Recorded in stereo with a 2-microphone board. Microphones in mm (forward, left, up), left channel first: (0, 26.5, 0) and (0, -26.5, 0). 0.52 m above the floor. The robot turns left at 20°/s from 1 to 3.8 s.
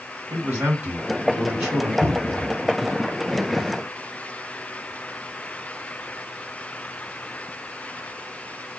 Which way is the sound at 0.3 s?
40° right (ahead or behind).